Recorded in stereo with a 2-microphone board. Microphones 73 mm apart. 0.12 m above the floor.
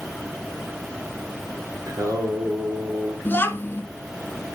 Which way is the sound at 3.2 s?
30° left (ahead or behind).